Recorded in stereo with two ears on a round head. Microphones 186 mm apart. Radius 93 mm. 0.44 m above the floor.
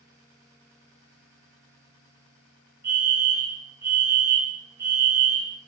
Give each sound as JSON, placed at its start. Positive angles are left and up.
{"t": 2.8, "sound": "a fire alarm", "side_deg": -15, "distance_m": 4.5}